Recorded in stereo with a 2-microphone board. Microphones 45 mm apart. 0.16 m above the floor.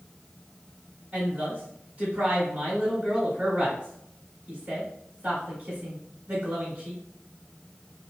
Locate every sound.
1.1 s a woman speaking: 30° right (ahead or behind), 1.8 m